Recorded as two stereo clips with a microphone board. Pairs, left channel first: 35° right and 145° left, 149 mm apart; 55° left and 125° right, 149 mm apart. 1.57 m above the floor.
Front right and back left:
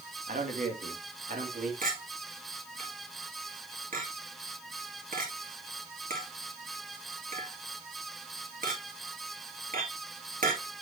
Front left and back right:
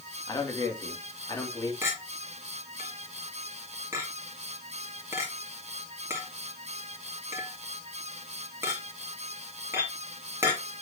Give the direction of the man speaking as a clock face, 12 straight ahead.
8 o'clock.